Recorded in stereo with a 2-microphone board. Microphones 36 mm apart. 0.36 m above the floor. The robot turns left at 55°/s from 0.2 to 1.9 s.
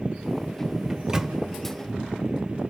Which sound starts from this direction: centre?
A microwave, at 0.9 s.